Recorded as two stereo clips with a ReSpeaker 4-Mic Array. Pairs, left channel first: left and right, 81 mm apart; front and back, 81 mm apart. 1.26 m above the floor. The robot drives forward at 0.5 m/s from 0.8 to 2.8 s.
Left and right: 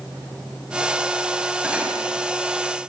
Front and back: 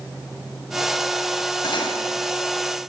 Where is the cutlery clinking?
15° right, 6 m.